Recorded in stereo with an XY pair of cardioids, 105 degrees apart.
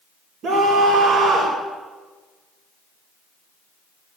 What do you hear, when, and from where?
0.4 s a scream: 65° right, 5.5 m